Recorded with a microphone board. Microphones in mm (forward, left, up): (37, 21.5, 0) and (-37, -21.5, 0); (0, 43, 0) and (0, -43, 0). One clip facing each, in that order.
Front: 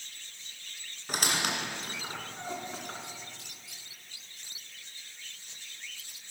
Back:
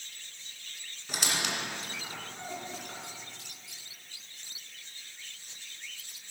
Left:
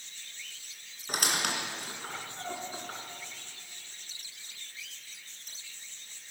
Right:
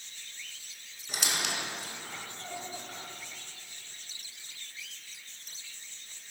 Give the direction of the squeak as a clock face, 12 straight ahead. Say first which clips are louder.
Front 2 dB, left 3 dB; 10 o'clock.